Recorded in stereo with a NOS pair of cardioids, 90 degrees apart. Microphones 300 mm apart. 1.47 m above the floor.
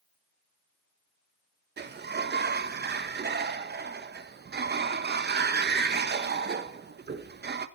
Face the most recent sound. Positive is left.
turn(degrees=-35)